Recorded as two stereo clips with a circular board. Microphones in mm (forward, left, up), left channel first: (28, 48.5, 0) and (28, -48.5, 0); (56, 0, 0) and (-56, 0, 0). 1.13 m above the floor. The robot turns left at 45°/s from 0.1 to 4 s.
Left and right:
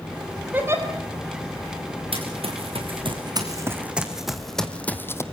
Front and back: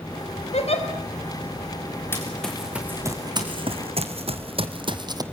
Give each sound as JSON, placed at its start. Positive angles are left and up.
{"t": 0.5, "sound": "a giggle", "azimuth_deg": -20, "distance_m": 5.0}
{"t": 2.1, "sound": "running footsteps", "azimuth_deg": -70, "distance_m": 5.0}